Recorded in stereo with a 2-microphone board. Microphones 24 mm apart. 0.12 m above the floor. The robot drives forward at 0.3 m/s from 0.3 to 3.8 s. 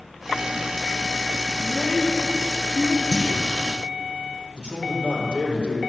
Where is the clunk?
35° left (ahead or behind), 3 m.